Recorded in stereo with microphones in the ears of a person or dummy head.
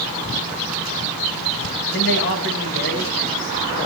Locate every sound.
1.9 s a man speaking: 55° left (ahead or behind), 5.5 m; by 3.9 s 70° left (ahead or behind), 6 m